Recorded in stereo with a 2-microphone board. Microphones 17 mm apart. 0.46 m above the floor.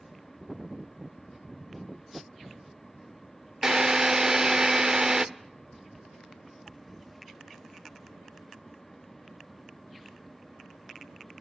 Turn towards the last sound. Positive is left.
turn(degrees=-35)  # may be behind; listen again after turning